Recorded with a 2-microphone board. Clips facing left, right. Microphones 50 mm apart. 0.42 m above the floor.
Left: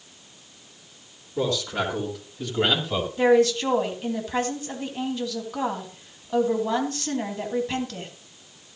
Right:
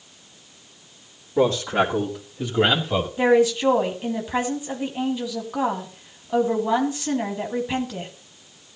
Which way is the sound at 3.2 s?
15° right (ahead or behind).